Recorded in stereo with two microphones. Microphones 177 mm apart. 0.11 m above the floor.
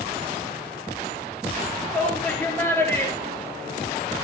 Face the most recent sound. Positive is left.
turn(degrees=25)  # may be behind; listen again after turning